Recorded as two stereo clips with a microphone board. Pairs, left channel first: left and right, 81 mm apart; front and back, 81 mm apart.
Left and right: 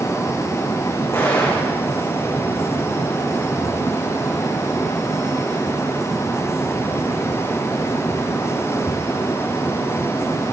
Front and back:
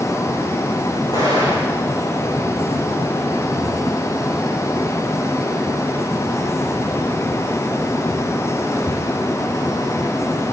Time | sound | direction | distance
1.1 | an explosion | 30° left | 7 m